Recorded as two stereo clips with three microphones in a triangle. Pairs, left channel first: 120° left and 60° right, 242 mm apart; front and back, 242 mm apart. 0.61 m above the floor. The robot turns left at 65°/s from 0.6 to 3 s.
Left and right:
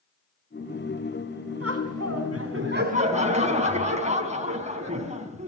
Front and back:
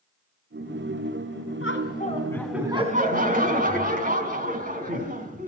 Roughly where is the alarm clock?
I don't hear an alarm clock.